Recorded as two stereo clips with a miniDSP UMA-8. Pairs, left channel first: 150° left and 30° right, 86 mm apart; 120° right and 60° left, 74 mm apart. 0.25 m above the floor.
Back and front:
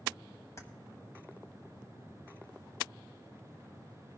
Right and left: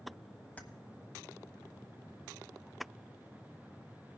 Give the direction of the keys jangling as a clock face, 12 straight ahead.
6 o'clock.